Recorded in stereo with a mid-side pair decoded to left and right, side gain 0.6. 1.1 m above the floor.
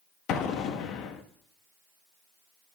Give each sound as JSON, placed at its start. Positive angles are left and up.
{"t": 0.3, "sound": "an explosion", "azimuth_deg": 65, "distance_m": 1.1}